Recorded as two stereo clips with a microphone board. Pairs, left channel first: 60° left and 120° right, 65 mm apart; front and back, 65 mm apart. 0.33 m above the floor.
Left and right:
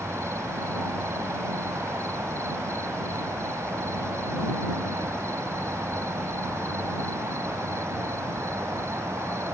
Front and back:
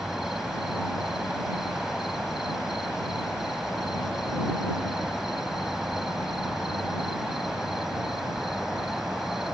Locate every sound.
0.0 s an insect: 95° right